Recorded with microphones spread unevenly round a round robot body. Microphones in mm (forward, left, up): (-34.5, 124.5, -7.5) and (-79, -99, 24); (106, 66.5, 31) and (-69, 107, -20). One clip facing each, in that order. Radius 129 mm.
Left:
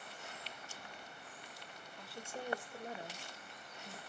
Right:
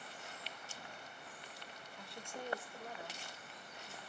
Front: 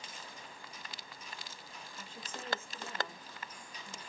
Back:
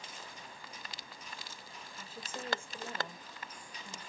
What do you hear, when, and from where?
2.0 s a woman speaking: 150° left, 1.1 m; by 4.0 s 115° left, 1.8 m